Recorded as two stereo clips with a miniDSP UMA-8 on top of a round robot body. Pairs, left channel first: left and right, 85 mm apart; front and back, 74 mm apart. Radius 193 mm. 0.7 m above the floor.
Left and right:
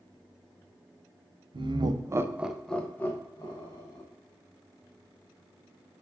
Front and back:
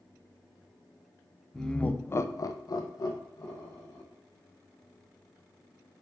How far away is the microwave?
I don't hear a microwave.